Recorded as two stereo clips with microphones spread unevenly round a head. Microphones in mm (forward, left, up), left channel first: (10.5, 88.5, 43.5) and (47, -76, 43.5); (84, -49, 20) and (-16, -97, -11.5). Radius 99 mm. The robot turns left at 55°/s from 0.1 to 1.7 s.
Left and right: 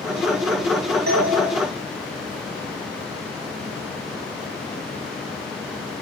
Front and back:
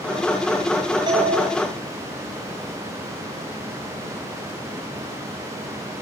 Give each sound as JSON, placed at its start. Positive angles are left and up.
{"t": 1.1, "sound": "a doorbell", "azimuth_deg": -115, "distance_m": 9.0}